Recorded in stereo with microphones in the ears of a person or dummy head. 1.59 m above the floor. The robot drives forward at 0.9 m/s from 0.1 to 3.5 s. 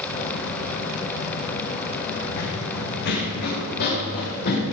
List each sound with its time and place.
2.4 s running footsteps: 60° left (ahead or behind), 3.5 m; by 4.7 s 45° left (ahead or behind), 7 m